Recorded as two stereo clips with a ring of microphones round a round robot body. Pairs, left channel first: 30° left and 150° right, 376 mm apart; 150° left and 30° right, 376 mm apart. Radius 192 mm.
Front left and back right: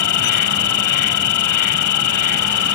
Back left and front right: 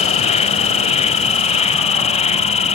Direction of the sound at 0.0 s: 75° left.